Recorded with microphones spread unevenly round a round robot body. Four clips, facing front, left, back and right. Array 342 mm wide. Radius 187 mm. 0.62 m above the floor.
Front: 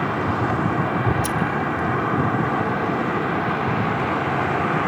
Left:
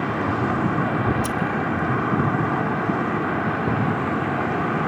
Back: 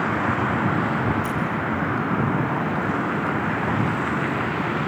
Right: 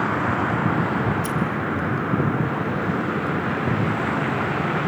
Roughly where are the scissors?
Ahead left.